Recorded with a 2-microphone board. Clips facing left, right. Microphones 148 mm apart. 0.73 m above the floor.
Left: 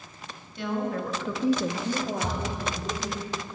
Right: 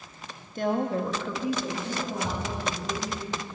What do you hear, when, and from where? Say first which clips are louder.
0.6 s a woman speaking: right 3 dB; 45° right (ahead or behind), 1.3 m; by 3.2 s 70° left (ahead or behind), 3 m
2.2 s a thud: even; 75° left (ahead or behind), 1.9 m